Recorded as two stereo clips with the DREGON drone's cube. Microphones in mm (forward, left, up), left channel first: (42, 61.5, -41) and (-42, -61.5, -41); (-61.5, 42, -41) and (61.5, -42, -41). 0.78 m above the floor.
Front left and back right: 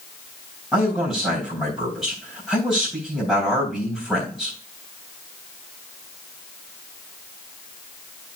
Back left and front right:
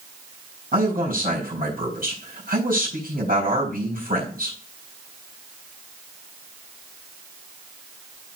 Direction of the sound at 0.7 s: 35° right.